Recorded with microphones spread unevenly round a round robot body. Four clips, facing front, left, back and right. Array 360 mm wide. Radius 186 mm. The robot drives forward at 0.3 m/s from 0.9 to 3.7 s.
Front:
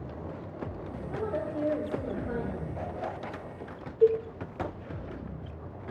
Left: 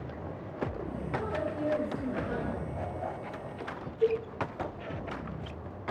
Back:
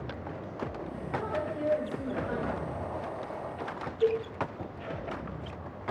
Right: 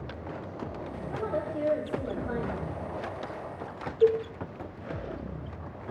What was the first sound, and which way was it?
A woman speaking, 45° right.